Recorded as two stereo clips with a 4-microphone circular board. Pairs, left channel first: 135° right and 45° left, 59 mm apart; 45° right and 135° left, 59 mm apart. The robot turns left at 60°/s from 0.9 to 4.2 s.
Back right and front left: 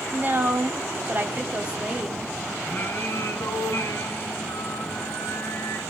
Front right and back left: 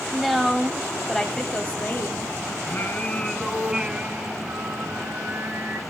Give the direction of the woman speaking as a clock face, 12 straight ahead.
10 o'clock.